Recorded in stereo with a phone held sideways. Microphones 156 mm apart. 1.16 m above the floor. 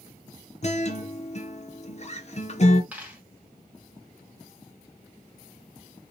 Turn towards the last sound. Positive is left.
turn(degrees=-10)  # may be behind; listen again after turning